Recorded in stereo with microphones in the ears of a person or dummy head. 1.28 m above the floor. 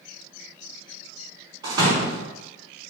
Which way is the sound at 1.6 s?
25° right (ahead or behind).